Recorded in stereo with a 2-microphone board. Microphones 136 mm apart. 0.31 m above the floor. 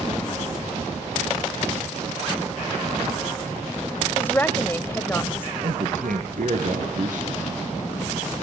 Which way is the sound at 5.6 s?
80° right.